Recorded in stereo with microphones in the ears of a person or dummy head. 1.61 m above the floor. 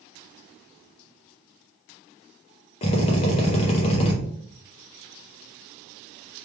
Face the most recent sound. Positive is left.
turn(degrees=35)  # may be behind; listen again after turning